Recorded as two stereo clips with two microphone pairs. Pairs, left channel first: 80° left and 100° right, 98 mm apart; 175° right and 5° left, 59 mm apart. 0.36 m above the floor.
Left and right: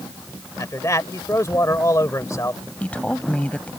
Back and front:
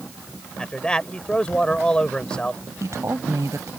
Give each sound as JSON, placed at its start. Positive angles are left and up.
{"t": 0.6, "sound": "a man speaking", "azimuth_deg": 115}
{"t": 2.8, "sound": "a woman speaking", "azimuth_deg": 10}